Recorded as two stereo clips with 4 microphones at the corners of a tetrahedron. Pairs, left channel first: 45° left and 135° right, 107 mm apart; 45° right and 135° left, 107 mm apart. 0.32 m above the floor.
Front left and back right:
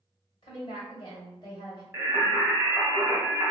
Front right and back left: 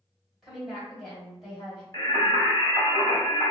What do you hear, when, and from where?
0.4 s a woman speaking: 45° left, 1.9 m
1.9 s singing: 85° right, 1.4 m